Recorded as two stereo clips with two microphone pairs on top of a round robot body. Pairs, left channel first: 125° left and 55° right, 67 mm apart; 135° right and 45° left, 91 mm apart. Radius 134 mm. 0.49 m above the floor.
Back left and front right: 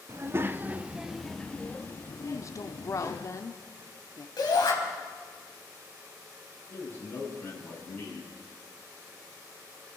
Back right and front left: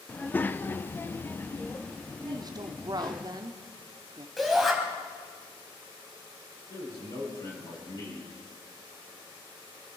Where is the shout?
135° left, 4.5 m.